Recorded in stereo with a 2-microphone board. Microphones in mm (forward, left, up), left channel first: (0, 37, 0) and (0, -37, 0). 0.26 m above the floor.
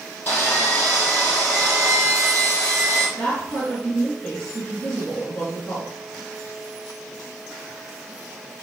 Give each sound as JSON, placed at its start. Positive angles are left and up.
{"t": 0.3, "sound": "sawing", "side_deg": 25, "distance_m": 3.0}
{"t": 3.2, "sound": "a woman speaking", "side_deg": 20, "distance_m": 3.0}